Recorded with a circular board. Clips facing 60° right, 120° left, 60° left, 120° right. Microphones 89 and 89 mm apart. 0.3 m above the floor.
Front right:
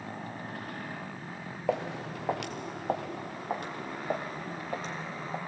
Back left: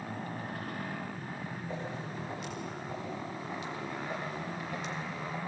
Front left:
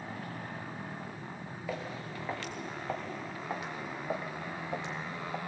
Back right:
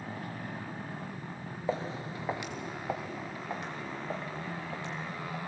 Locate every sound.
1.7 s footsteps: 60° right, 1.6 m; by 5.4 s 5° right, 2 m